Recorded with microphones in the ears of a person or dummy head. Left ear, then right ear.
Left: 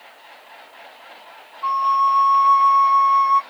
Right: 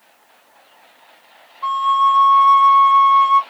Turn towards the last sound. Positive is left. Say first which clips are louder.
# right 2 dB
turn(degrees=-40)  # may be behind; listen again after turning